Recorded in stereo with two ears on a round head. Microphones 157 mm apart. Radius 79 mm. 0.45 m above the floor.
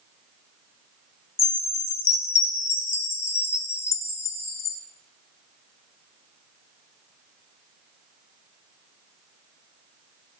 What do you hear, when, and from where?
1.4 s a chime: 15° left (ahead or behind), 0.8 m